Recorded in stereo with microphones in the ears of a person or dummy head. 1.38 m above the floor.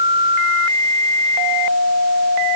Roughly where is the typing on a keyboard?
No typing on a keyboard in this recording.